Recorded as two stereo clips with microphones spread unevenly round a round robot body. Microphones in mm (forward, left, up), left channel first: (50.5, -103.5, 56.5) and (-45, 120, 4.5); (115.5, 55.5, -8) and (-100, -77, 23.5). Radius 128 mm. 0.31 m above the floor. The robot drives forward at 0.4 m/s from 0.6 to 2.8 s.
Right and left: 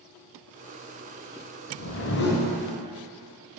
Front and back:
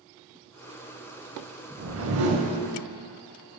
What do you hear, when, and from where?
1.8 s a whoosh: 105° right, 0.6 m; by 2.5 s 130° right, 0.8 m